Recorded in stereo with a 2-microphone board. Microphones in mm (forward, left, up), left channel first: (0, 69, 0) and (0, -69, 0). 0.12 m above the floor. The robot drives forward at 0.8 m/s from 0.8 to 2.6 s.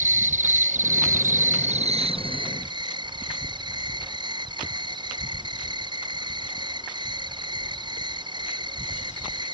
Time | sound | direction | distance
0.0 | an insect | 70° right (ahead or behind) | ?